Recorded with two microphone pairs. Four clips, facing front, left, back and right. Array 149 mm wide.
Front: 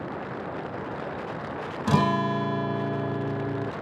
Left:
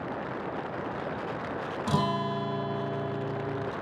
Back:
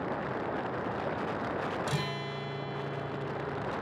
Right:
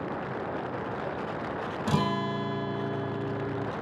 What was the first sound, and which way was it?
A guitar, 5° left.